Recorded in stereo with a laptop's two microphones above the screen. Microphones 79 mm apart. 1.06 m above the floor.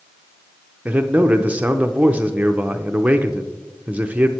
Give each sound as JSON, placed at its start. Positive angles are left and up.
{"t": 0.8, "sound": "a man speaking", "side_deg": -15, "distance_m": 0.6}